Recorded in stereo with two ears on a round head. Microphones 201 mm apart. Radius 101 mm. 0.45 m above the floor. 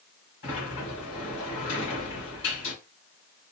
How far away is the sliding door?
About 2.5 m.